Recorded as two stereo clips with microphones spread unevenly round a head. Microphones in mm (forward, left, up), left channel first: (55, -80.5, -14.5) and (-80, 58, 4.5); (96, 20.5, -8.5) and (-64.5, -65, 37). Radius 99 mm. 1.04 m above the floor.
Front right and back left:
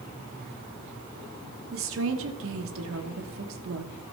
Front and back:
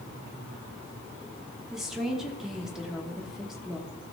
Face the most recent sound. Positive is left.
turn(degrees=115)